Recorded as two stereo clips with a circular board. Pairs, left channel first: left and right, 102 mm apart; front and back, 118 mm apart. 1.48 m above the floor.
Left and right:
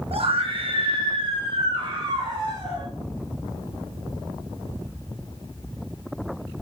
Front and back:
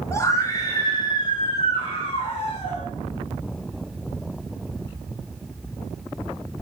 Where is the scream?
65° right, 2 m; by 2.8 s 40° right, 3.5 m.